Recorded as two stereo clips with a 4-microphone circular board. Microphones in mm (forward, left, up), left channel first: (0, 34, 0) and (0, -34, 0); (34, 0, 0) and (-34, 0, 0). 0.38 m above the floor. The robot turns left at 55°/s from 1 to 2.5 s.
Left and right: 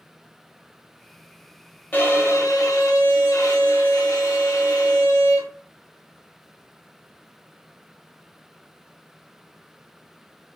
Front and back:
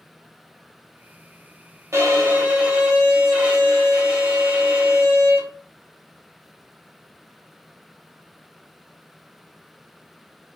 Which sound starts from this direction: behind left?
A violin, at 1.9 s.